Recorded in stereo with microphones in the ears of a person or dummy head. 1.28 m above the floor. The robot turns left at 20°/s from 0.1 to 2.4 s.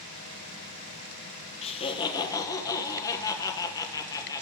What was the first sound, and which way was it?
Laughter, 40° left (ahead or behind).